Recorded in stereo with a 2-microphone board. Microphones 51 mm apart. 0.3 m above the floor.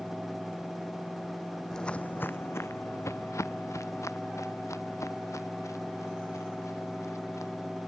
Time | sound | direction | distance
1.7 | footsteps | 10° left (ahead or behind) | ?